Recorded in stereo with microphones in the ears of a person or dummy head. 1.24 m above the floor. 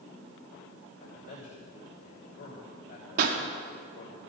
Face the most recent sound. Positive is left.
turn(degrees=-55)  # may be behind; listen again after turning